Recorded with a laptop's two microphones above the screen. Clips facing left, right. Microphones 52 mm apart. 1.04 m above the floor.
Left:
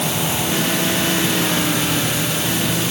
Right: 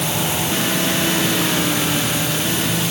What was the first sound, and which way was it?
Only background noise.